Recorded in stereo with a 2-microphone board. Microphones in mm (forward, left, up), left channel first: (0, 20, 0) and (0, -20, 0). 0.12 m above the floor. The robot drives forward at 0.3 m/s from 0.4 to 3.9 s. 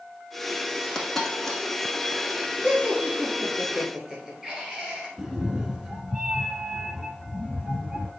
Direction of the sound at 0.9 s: 10° left (ahead or behind).